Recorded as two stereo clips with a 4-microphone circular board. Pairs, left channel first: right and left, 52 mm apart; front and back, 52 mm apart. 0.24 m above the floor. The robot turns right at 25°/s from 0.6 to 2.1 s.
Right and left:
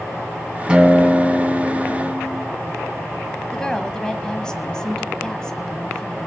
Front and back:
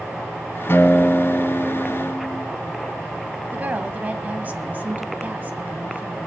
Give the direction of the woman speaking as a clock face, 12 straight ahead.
5 o'clock.